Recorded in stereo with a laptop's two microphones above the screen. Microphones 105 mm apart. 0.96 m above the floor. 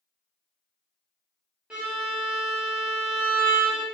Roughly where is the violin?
Centre.